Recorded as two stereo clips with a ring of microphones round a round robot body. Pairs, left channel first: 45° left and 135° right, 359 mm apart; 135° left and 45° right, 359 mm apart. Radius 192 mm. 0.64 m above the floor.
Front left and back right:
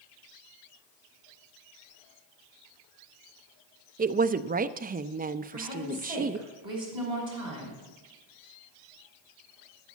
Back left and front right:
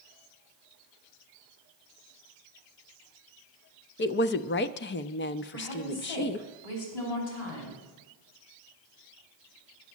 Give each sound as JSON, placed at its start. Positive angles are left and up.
{"t": 4.0, "sound": "a woman speaking", "azimuth_deg": 175, "distance_m": 0.6}
{"t": 5.5, "sound": "a woman speaking", "azimuth_deg": 150, "distance_m": 5.5}